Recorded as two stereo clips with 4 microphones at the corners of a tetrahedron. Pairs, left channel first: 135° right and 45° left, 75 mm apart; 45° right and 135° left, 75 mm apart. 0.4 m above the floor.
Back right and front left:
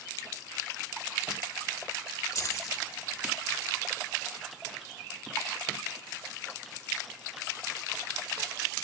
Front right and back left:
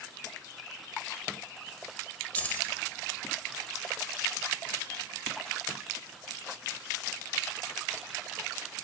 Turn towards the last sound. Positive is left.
turn(degrees=-105)